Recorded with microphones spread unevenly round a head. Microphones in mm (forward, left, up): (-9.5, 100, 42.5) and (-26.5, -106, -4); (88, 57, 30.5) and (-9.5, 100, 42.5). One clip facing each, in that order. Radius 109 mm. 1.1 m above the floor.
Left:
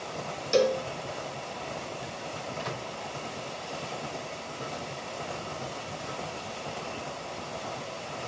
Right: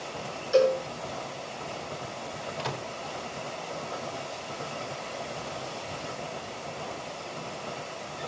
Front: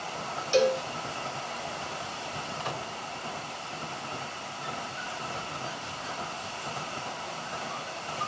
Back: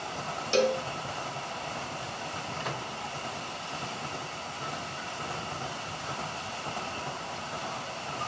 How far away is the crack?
No crack in this recording.